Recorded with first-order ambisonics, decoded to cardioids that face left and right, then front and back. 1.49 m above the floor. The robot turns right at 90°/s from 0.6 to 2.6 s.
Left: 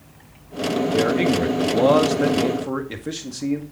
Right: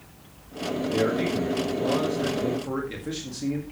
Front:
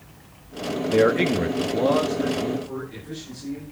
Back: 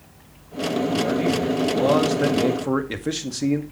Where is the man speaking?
10° left, 2 m; by 3.6 s 160° left, 2 m.